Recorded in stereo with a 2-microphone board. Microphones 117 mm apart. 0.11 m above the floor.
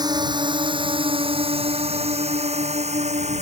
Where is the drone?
35° right (ahead or behind); by 3.4 s 70° right (ahead or behind).